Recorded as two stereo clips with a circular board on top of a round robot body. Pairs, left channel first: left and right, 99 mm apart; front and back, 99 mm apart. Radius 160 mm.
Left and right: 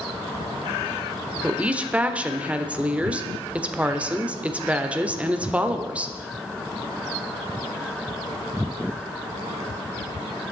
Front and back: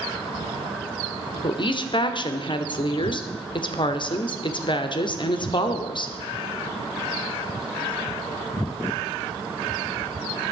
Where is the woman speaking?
15° right, 1.4 m.